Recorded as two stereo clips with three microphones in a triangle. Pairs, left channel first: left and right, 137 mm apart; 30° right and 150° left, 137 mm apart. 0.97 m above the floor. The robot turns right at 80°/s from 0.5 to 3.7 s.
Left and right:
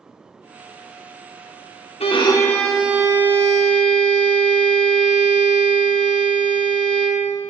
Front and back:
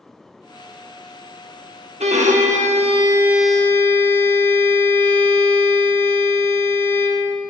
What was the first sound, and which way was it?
A violin, 125° left.